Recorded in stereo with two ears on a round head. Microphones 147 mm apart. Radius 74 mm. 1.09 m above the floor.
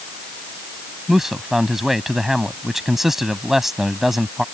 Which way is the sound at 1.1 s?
Centre (ahead or behind).